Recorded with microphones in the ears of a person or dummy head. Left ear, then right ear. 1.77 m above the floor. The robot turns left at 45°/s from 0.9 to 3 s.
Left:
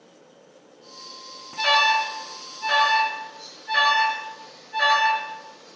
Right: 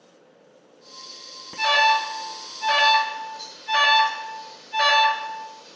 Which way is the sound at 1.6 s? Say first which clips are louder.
Even; 30° left (ahead or behind).